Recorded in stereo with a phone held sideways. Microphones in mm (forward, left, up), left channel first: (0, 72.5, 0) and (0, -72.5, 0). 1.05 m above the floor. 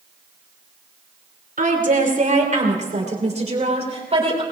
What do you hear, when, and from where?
1.6 s a woman speaking: 70° right (ahead or behind), 3.5 m; by 4.4 s 45° right (ahead or behind), 4 m